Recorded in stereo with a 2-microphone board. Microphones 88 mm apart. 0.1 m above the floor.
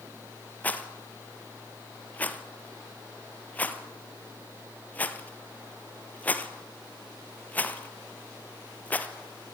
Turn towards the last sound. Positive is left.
turn(degrees=20)  # may be behind; listen again after turning